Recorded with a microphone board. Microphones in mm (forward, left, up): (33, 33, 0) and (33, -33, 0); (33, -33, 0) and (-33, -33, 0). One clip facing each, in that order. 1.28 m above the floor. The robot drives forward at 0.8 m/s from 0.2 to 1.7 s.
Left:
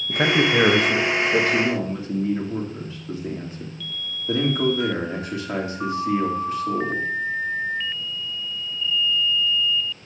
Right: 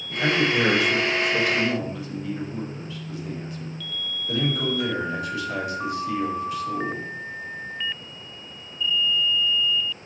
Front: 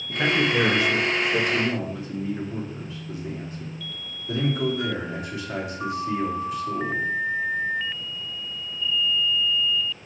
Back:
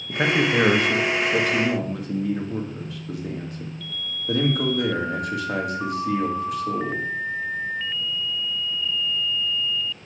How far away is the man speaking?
About 1.3 m.